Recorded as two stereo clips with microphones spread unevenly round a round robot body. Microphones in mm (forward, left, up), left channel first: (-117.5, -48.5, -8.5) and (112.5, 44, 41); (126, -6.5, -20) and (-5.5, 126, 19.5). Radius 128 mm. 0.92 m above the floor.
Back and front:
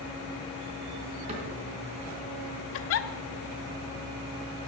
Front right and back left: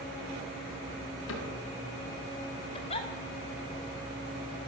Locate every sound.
1.3 s a cupboard door: 45° right, 4 m
2.7 s a giggle: 115° right, 0.8 m